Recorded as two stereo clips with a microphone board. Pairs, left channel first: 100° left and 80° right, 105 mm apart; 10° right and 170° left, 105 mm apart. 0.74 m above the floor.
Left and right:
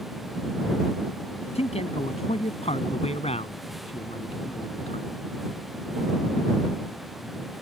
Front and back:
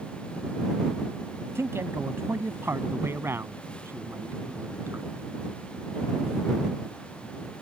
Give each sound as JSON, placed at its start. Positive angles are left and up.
{"t": 1.6, "sound": "a man speaking", "azimuth_deg": 105}